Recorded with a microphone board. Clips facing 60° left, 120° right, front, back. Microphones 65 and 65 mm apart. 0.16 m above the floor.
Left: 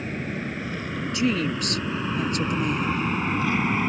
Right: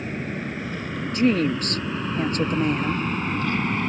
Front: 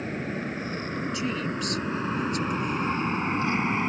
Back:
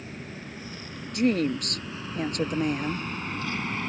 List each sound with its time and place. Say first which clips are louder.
0.0 s an aircraft: right 1 dB, front 9 dB; 30° right; by 3.9 s 5° right
1.1 s a woman speaking: right 5 dB, back 10 dB; 160° right